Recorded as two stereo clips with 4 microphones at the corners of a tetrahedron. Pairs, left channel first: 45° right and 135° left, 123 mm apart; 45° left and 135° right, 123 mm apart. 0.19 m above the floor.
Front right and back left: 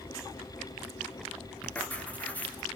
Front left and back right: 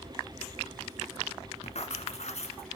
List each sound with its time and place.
1.6 s writing: 30° left, 2 m